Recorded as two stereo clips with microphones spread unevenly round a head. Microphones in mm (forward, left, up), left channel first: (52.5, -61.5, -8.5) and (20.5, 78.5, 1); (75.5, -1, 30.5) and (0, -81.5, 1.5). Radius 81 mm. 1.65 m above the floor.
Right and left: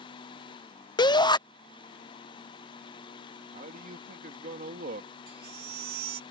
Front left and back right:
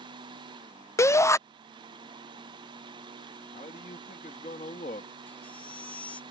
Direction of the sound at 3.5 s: 80° left.